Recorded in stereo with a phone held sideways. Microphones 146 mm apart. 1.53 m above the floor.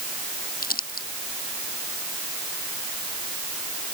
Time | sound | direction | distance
0.6 | crumpling | 85° left | ?